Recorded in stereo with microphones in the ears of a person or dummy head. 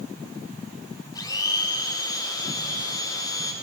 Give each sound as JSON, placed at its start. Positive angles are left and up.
{"t": 1.1, "sound": "a blender", "side_deg": 20, "distance_m": 3.0}